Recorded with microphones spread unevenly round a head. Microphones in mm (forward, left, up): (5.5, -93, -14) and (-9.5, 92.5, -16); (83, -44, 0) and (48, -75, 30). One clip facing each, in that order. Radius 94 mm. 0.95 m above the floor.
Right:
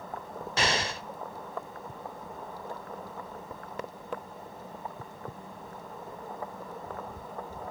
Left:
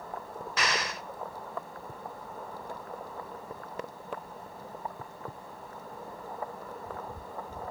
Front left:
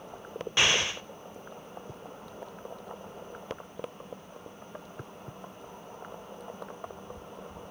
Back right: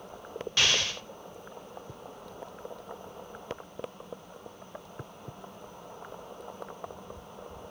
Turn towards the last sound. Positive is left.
turn(degrees=-70)